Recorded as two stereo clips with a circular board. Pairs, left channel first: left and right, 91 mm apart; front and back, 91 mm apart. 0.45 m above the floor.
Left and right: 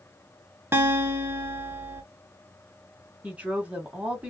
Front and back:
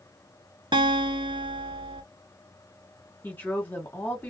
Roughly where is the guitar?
Behind right.